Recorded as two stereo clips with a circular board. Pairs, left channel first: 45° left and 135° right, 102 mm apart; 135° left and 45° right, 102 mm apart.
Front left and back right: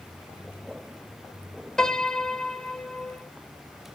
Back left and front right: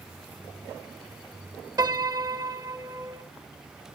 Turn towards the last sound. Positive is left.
turn(degrees=-35)